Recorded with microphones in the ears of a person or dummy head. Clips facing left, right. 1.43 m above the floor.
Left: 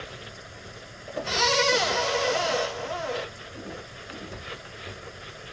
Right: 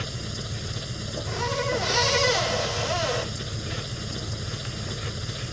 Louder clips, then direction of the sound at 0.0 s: Right 6 dB; 65° right (ahead or behind).